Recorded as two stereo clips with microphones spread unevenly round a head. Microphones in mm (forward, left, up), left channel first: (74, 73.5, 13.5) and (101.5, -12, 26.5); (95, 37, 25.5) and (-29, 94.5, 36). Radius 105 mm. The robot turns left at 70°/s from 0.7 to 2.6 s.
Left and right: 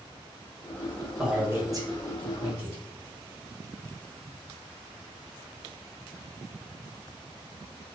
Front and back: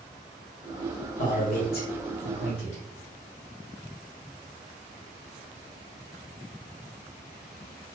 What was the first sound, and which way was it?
A man speaking, 10° left.